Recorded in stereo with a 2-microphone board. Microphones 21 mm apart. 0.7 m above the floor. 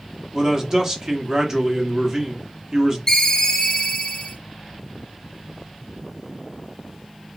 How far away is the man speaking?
About 1.2 m.